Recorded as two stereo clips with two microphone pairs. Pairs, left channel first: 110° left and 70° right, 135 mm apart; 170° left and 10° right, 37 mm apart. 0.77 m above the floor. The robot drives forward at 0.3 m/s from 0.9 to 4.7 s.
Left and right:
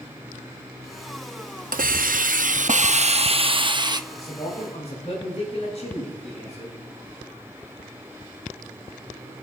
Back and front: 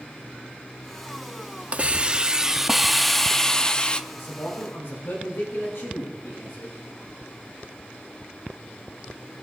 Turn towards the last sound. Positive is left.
turn(degrees=150)